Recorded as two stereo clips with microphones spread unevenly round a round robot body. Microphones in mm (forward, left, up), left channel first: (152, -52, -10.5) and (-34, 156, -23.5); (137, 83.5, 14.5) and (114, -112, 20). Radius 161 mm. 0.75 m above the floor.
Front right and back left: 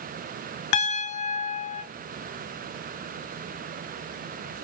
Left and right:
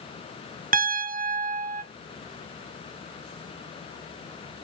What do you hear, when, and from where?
0.7 s a piano: 55° right, 1.0 m